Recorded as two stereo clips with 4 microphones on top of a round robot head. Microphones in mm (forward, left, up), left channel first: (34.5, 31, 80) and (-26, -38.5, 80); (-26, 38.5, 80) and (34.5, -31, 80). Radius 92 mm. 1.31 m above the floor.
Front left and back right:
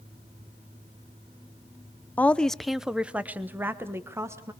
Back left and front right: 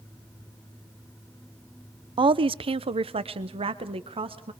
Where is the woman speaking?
20° right, 0.7 m; by 4.5 s 70° right, 1.8 m.